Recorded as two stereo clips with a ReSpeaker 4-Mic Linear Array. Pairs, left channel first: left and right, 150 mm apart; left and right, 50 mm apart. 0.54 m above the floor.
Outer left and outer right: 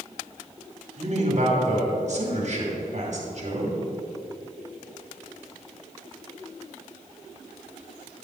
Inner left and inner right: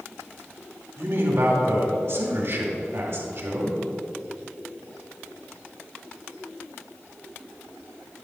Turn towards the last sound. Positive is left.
turn(degrees=-55)  # may be behind; listen again after turning